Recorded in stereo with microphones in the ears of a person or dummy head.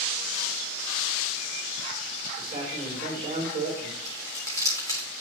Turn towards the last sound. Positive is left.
turn(degrees=15)  # may be behind; listen again after turning